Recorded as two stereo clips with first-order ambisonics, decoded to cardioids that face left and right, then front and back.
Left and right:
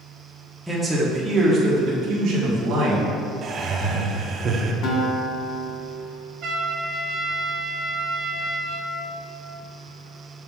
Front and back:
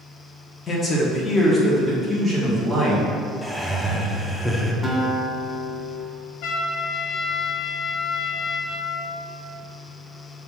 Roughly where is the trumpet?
Ahead right.